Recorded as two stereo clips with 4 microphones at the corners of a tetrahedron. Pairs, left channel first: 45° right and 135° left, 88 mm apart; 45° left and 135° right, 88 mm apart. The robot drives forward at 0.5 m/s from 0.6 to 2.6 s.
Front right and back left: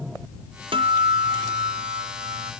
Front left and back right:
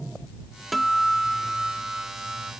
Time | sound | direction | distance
0.7 | a guitar | 135° left | ?